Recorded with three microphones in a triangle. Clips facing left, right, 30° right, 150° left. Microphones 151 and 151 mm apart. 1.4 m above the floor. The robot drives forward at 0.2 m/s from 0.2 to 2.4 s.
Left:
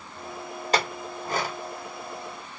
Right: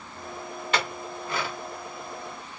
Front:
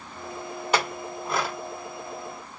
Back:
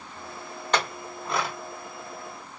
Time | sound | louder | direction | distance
0.7 | a clink | left 3 dB, front 1 dB | 50° left | 0.9 m